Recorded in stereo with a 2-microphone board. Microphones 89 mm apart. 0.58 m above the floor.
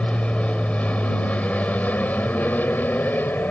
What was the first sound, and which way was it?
An aircraft, 10° left (ahead or behind).